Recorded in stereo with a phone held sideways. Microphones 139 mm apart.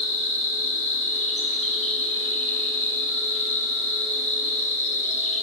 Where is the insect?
55° left (ahead or behind), 1.2 m.